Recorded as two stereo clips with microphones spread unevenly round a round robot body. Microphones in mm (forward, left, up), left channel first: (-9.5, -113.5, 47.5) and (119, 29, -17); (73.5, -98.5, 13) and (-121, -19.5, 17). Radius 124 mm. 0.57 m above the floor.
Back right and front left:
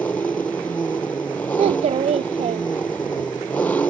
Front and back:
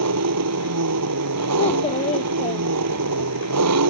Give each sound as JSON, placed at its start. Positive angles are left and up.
{"t": 0.0, "sound": "an engine running", "azimuth_deg": 145}
{"t": 1.6, "sound": "a child speaking", "azimuth_deg": 30}